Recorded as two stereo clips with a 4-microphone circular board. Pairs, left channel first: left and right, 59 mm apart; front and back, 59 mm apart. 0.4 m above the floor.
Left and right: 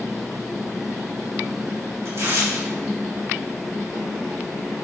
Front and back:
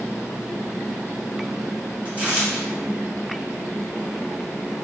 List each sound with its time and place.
2.0 s tearing paper: 120° right, 3 m